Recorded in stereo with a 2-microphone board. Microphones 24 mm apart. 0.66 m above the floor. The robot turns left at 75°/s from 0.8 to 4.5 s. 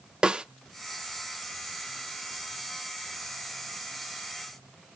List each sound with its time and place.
0.2 s a snare drum: 40° right (ahead or behind), 0.6 m